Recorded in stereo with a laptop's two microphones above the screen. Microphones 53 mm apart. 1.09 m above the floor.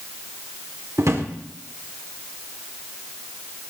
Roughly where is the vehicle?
I don't hear a vehicle.